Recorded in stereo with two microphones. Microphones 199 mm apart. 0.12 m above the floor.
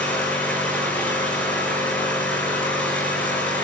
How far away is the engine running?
About 7.5 m.